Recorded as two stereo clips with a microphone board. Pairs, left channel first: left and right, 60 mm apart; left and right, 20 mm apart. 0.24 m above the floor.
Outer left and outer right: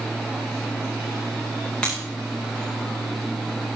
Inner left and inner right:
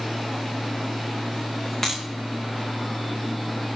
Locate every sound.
1.8 s breaking glass: 15° left (ahead or behind), 7 m